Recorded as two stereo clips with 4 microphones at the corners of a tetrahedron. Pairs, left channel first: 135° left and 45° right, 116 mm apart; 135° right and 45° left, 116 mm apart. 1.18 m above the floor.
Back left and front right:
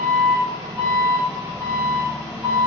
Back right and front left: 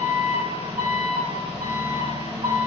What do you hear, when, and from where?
0.0 s an engine running: 5° left, 1.6 m